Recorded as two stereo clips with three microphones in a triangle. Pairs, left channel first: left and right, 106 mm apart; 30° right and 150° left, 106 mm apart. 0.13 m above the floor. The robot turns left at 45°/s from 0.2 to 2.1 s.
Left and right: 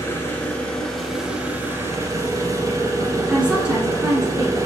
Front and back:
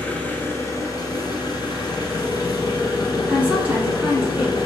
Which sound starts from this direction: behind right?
A woman speaking, at 3.3 s.